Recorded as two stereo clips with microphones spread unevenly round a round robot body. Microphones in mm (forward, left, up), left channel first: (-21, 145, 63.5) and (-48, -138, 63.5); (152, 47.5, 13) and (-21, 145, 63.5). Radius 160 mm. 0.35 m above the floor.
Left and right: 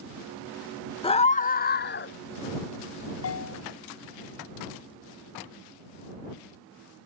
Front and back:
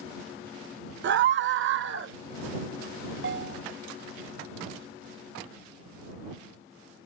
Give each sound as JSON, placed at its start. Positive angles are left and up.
{"t": 1.0, "sound": "a scream", "azimuth_deg": 150}
{"t": 3.2, "sound": "a bell", "azimuth_deg": 125}